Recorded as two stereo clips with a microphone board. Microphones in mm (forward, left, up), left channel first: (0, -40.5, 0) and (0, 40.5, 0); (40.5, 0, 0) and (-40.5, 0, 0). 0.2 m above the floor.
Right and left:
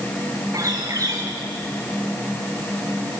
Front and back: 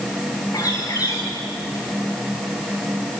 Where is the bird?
45° left, 4 m.